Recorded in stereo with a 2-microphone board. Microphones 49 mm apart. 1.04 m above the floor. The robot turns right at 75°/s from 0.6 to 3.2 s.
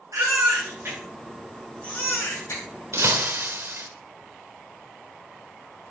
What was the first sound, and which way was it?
A baby crying, 70° right (ahead or behind).